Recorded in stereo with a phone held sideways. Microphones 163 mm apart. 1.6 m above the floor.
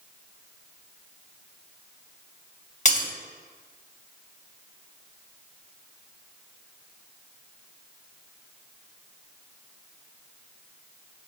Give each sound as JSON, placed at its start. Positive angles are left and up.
{"t": 2.9, "sound": "breaking glass", "side_deg": 45, "distance_m": 1.5}